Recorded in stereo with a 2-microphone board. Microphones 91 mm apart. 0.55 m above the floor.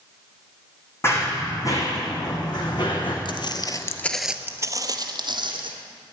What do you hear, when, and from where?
1.0 s running footsteps: 30° left (ahead or behind), 2 m; by 3.1 s 60° left (ahead or behind), 2.5 m
3.2 s footsteps: 60° left (ahead or behind), 1.0 m; by 5.7 s 60° right (ahead or behind), 1.7 m